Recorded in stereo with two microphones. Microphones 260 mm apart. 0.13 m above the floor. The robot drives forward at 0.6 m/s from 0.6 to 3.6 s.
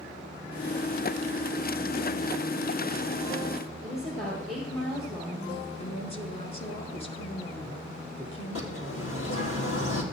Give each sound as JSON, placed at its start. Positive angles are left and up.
{"t": 3.8, "sound": "a woman speaking", "side_deg": 0, "distance_m": 3.5}
{"t": 5.8, "sound": "a woman speaking", "side_deg": 25, "distance_m": 2.0}
{"t": 8.6, "sound": "a bird", "side_deg": 60, "distance_m": 3.0}